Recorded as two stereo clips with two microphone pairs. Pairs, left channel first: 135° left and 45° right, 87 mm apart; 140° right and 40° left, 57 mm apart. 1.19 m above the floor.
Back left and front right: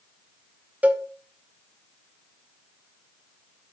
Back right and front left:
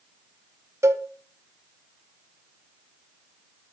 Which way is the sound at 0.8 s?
20° left.